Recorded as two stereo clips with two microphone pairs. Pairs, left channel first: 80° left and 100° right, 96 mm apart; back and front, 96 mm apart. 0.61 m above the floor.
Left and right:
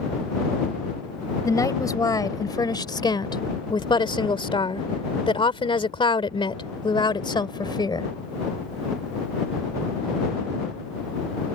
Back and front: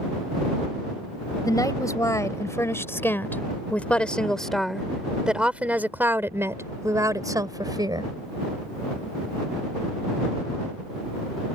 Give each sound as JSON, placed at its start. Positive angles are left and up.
{"t": 1.4, "sound": "a woman speaking", "azimuth_deg": 135}